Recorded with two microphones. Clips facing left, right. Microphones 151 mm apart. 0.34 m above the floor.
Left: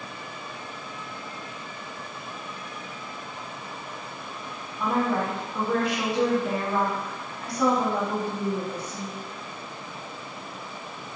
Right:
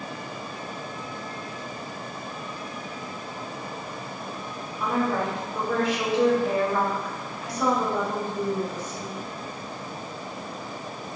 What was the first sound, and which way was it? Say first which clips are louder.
A woman speaking: even; 55° left (ahead or behind).